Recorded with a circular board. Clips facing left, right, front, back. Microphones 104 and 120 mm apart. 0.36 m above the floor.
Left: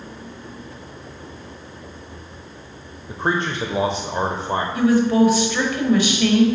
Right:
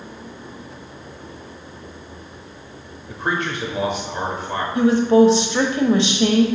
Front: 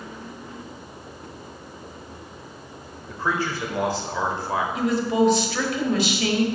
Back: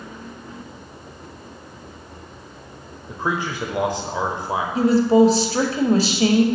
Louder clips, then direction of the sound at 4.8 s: Right 3 dB, back 8 dB; 140° right.